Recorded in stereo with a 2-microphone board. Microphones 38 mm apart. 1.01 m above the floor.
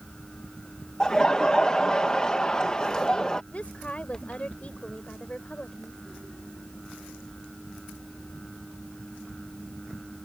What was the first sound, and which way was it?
Laughter, 20° left (ahead or behind).